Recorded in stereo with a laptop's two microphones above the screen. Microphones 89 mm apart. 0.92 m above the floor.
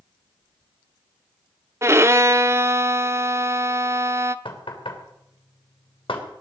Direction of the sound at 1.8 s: 30° right (ahead or behind).